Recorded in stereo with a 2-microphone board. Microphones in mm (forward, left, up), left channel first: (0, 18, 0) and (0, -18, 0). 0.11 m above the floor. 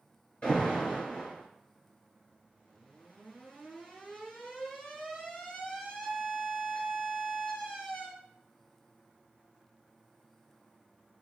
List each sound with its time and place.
0.4 s an alarm: 35° left (ahead or behind), 1.7 m